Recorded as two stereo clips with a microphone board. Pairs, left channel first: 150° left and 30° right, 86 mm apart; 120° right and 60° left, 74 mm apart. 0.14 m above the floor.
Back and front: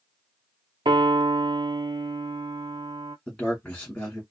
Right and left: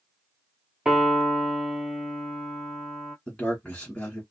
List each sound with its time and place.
0.8 s a piano: 20° right, 0.6 m
3.3 s a man speaking: 165° right, 1.5 m